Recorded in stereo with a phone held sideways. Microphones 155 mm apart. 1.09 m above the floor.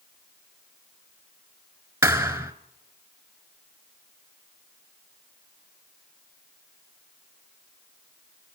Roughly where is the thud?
Centre.